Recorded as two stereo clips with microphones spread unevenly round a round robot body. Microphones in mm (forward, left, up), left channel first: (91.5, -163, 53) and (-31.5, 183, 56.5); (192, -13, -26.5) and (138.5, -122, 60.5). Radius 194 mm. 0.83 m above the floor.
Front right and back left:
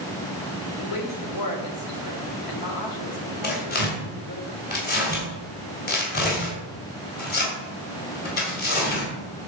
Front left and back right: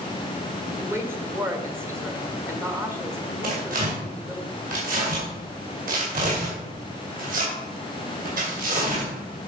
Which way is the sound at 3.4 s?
135° right.